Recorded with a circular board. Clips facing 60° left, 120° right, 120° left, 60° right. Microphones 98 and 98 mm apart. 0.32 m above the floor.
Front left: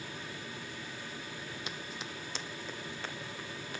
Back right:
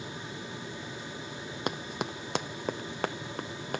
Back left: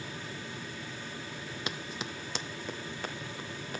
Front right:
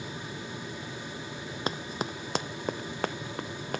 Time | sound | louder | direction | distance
1.7 | running footsteps | back right 9 dB, front right 7 dB | 105° right | 0.5 m